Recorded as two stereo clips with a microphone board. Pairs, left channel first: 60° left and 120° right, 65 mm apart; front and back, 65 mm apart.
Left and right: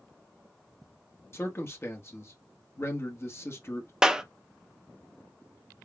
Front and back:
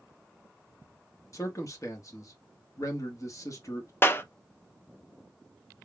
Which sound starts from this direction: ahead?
A man speaking, at 1.3 s.